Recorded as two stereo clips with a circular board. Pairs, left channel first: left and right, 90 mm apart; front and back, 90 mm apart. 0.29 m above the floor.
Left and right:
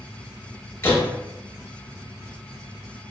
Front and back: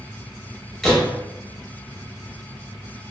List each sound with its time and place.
0.8 s a door slam: 85° left, 0.8 m